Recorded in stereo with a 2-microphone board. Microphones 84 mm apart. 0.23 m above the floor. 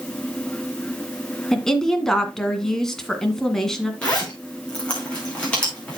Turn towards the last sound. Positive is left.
turn(degrees=15)  # may be behind; listen again after turning